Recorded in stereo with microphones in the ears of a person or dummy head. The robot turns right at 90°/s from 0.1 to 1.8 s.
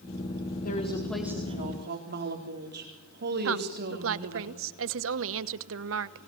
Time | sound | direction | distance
0.6 | a woman speaking | 125° left | 4 m
3.5 | a woman speaking | 75° right (ahead or behind) | 0.9 m